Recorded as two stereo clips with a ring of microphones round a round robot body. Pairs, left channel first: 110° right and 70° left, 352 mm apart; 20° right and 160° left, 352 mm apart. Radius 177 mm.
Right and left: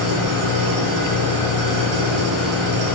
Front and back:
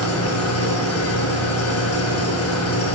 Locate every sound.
0.0 s an engine running: 30° left, 7.5 m